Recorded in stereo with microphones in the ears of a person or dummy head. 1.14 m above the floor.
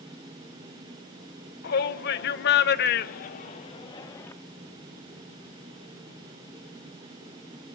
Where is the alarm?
I don't hear an alarm.